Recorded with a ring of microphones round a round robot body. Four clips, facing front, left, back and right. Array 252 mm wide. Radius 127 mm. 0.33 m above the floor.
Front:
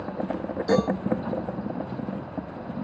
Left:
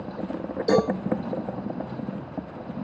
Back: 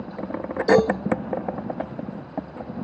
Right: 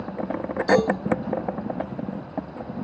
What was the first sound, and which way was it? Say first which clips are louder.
A cowbell: right 2 dB, back 6 dB; 135° left.